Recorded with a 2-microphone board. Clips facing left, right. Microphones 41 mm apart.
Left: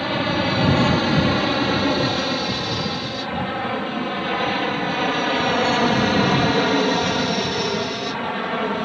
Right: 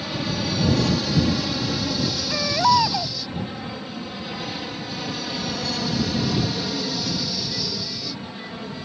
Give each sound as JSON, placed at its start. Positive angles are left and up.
{"t": 0.0, "sound": "an aircraft", "side_deg": 35}
{"t": 2.3, "sound": "a baby crying", "side_deg": -80}